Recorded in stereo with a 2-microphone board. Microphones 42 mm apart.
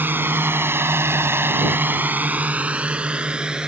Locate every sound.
0.0 s a drone: 60° right (ahead or behind); by 3.7 s 20° right (ahead or behind)